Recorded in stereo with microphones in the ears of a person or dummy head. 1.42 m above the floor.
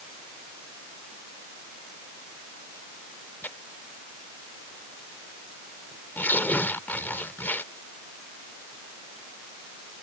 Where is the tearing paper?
10° left (ahead or behind).